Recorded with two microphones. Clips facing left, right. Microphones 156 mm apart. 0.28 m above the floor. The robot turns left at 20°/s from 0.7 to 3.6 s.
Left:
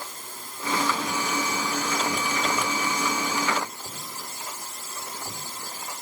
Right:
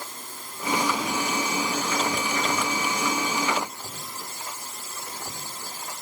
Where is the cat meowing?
No cat meowing in this recording.